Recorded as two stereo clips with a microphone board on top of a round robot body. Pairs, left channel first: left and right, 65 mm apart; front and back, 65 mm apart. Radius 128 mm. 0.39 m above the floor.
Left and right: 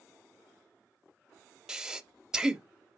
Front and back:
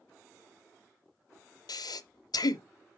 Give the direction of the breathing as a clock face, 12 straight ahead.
12 o'clock.